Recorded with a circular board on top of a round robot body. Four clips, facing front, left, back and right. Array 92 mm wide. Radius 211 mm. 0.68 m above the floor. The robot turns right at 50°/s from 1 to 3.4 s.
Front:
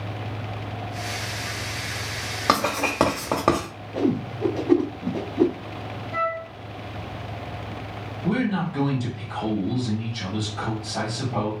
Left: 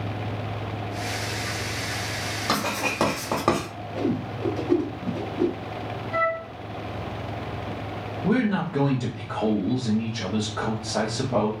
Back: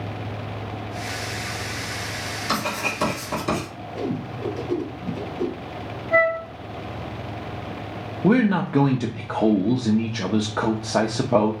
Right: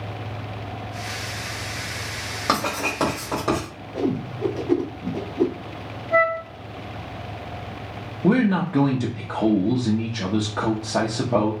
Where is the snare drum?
No snare drum in this recording.